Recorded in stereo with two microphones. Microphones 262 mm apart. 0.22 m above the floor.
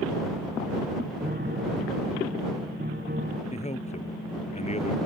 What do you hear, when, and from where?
1.2 s a piano: 35° right (ahead or behind)
3.5 s a man speaking: 25° left (ahead or behind)